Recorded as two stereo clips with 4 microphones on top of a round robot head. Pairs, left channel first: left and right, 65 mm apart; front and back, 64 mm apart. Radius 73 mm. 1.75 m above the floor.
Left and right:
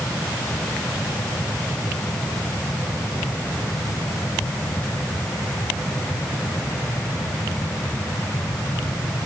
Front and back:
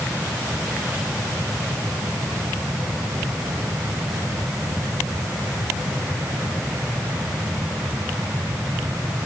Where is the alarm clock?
I don't hear an alarm clock.